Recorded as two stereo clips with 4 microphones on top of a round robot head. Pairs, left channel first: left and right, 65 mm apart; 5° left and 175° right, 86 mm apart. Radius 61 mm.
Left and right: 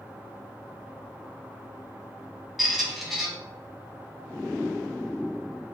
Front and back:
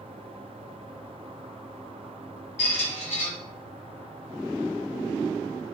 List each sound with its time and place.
2.6 s a squeak: 5° right, 1.0 m